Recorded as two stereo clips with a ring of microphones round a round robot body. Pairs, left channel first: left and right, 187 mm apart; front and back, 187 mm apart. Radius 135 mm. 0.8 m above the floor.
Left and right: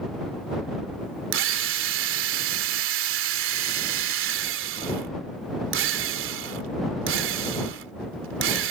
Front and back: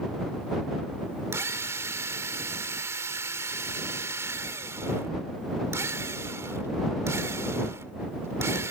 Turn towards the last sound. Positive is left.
turn(degrees=-100)